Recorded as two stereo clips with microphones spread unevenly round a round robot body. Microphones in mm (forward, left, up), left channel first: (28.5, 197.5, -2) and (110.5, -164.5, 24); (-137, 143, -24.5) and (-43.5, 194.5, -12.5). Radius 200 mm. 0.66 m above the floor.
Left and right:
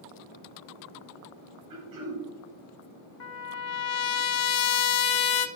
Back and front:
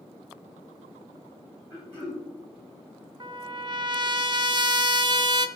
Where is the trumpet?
60° left, 0.8 m.